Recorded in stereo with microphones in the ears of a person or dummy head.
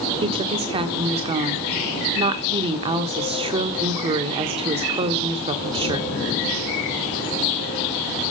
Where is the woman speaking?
25° right (ahead or behind), 1.1 m.